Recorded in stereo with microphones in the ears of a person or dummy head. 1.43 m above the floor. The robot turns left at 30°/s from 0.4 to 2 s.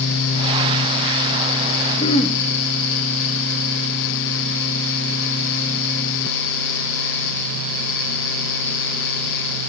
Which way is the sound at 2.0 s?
35° left (ahead or behind).